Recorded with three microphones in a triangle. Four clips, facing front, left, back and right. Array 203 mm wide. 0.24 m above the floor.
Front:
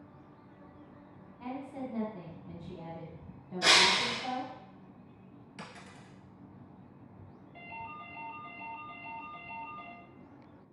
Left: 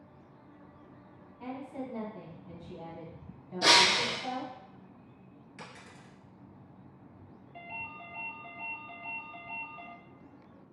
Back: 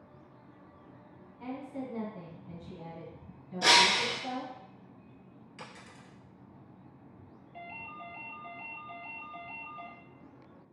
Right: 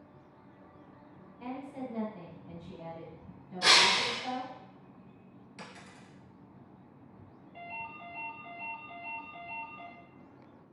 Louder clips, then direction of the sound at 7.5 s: Right 1 dB, front 1 dB; 105° left.